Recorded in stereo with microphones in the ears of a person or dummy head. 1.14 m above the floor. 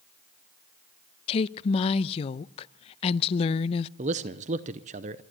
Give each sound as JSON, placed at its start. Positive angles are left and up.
{"t": 1.3, "sound": "a woman speaking", "side_deg": 30, "distance_m": 0.5}
{"t": 4.0, "sound": "a man speaking", "side_deg": -30, "distance_m": 0.7}